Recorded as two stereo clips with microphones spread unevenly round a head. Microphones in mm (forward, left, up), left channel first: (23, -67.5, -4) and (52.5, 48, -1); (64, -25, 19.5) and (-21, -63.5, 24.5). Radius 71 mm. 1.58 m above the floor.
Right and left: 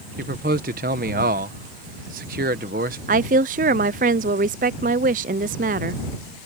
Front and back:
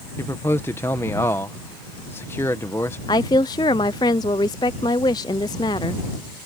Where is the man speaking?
95° left.